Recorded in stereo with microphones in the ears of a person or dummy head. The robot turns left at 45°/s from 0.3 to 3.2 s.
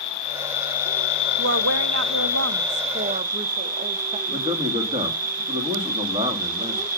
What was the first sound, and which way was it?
An insect, 80° left.